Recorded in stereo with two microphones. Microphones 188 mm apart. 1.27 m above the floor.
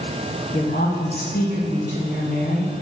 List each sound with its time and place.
0.5 s a woman speaking: 45° left (ahead or behind), 2 m